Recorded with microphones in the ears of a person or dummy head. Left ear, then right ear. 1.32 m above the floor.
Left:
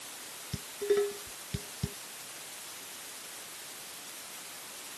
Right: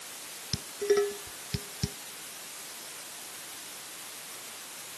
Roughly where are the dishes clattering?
Right.